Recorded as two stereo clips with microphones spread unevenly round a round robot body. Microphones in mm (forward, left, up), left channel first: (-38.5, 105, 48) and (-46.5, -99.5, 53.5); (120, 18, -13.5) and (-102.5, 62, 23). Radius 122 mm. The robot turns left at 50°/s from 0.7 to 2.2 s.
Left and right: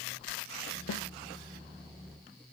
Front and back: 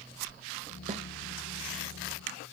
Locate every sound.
0.9 s a snare drum: 110° left, 0.6 m; by 1.0 s 100° left, 0.6 m